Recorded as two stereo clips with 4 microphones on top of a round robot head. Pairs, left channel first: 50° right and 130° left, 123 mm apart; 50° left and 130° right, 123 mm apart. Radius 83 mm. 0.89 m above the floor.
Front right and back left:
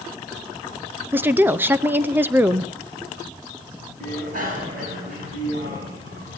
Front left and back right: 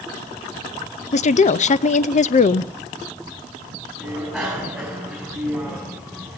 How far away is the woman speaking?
About 0.6 m.